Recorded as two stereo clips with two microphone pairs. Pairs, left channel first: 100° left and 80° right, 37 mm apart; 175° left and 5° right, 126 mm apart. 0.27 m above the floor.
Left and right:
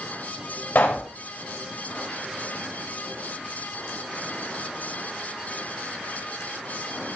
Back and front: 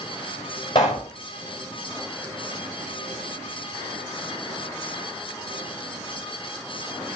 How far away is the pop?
About 7 m.